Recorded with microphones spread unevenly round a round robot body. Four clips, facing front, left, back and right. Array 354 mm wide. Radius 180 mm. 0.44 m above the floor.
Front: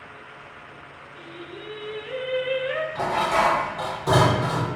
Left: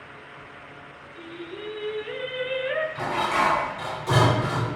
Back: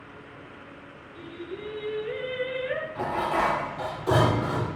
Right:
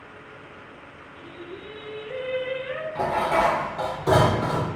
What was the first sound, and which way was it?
Singing, 160° left.